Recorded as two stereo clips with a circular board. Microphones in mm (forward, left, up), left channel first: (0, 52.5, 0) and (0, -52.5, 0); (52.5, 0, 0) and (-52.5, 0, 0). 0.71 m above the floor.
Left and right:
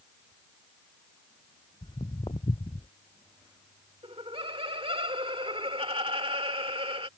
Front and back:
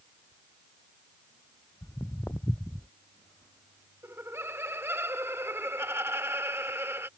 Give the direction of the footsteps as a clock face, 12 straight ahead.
10 o'clock.